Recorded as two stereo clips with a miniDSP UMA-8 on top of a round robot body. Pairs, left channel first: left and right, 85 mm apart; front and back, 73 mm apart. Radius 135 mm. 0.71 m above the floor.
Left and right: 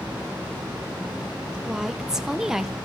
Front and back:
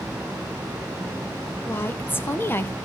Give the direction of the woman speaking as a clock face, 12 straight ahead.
12 o'clock.